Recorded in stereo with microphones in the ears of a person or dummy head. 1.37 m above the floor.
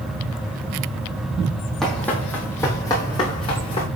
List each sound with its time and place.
1.8 s running footsteps: centre (ahead or behind), 2.5 m; by 3.9 s 30° left (ahead or behind), 3.5 m